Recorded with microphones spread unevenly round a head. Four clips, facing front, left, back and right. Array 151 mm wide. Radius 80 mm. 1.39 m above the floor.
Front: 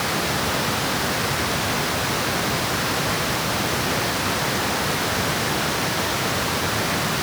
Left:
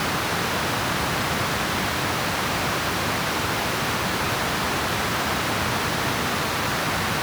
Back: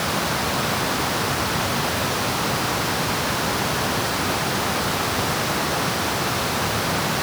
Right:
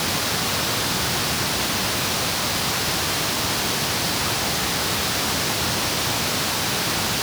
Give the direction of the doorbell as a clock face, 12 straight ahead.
I don't hear a doorbell.